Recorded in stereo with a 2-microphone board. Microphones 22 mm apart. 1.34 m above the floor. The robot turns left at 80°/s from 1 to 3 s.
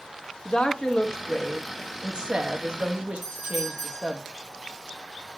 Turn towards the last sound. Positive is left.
turn(degrees=-15)  # may be behind; listen again after turning